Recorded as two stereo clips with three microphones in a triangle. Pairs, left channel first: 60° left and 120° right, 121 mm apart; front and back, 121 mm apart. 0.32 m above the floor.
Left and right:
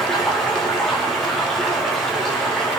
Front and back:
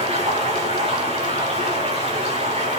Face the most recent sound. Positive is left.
turn(degrees=145)